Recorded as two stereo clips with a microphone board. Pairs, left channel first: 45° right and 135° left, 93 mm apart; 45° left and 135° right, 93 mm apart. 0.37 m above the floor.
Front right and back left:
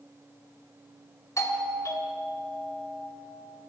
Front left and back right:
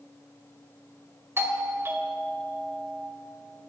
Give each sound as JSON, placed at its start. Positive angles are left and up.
{"t": 1.4, "sound": "a doorbell", "azimuth_deg": -80, "distance_m": 2.5}